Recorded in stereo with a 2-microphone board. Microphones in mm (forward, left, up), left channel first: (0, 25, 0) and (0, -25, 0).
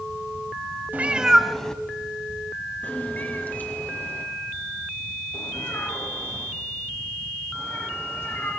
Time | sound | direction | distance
0.9 | a cat meowing | 35° right (ahead or behind) | 0.8 m